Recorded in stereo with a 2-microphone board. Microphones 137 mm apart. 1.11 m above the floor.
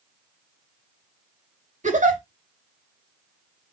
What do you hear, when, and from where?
1.8 s a giggle: 70° right (ahead or behind), 2.5 m